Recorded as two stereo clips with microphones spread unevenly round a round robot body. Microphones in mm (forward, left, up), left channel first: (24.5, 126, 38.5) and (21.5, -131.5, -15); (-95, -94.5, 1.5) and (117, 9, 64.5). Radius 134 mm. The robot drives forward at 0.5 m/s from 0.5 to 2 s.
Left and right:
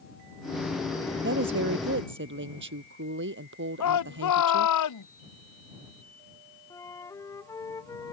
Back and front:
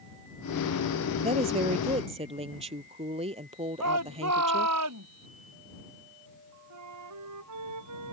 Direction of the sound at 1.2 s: 40° right.